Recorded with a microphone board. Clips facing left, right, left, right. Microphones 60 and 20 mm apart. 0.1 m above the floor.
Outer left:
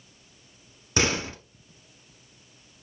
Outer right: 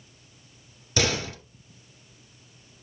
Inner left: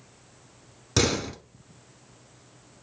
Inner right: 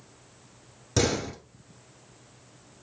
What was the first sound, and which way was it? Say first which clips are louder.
A door slam: outer left 1 dB, inner left 1 dB; 25° left (ahead or behind).